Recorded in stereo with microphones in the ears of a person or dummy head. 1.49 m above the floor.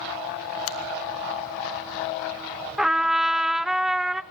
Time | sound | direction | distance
0.7 | a finger snap | 85° left | 0.9 m
2.8 | a trumpet | 10° right (ahead or behind) | 0.6 m